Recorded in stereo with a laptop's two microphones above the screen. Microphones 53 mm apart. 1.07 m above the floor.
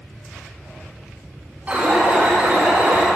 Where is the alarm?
25° right (ahead or behind), 4 m.